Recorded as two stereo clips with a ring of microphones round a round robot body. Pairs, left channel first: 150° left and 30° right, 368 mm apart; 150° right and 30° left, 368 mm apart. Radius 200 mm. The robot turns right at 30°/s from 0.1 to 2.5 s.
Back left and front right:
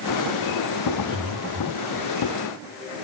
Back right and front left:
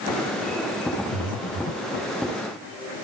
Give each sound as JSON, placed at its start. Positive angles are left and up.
{"t": 1.1, "sound": "breathing", "azimuth_deg": -120, "distance_m": 2.0}